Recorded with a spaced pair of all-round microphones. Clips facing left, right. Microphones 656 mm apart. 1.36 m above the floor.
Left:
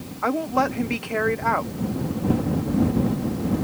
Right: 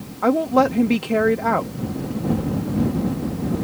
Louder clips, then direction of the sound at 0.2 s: Right 7 dB; 60° right (ahead or behind).